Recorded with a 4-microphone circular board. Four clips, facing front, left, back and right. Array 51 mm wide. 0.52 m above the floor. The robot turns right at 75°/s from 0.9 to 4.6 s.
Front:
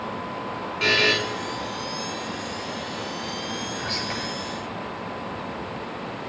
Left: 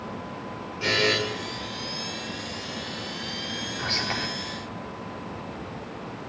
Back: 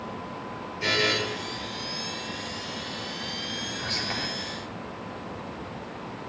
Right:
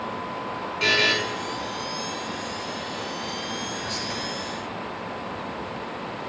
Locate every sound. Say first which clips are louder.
0.8 s a buzzer: right 2 dB, front 5 dB; 25° right, 5.5 m; by 1.1 s 10° right, 5.5 m
3.8 s whispering: left 1 dB, front 2 dB; 75° left, 1.5 m; by 4.3 s 110° left, 1.5 m